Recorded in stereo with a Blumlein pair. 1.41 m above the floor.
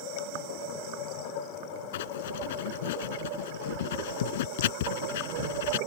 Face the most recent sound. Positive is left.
turn(degrees=55)